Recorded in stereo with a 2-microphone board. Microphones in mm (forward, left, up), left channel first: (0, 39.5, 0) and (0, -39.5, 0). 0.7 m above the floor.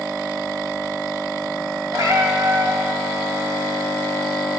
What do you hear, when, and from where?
1.9 s a cat meowing: 50° right (ahead or behind), 2.5 m